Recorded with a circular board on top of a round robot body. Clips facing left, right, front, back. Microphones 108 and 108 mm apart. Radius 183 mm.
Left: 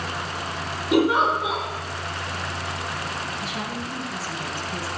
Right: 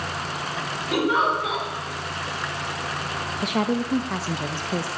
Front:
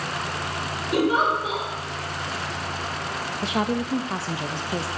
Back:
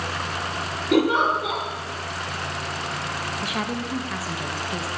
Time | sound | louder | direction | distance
0.9 | a giggle | left 3 dB, back 2 dB | 160° left | 6 m
3.4 | a woman speaking | right 7 dB, front 6 dB | 65° right | 0.8 m